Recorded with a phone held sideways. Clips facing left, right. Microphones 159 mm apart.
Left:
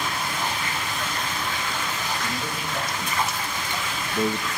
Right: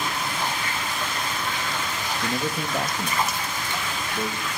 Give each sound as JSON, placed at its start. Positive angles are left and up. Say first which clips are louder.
{"t": 2.2, "sound": "a man speaking", "louder": "right 3 dB", "side_deg": -50, "distance_m": 1.2}